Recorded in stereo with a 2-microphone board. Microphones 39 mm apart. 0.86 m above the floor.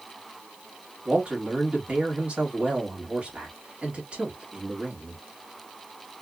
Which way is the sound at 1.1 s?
30° right (ahead or behind).